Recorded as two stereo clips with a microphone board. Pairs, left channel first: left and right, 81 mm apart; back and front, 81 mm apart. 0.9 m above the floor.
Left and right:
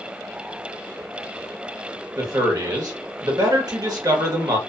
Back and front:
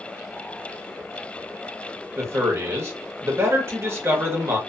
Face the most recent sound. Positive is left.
turn(degrees=-55)